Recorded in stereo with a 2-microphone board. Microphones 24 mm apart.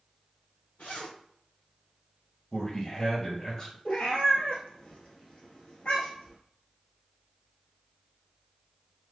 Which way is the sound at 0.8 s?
80° left.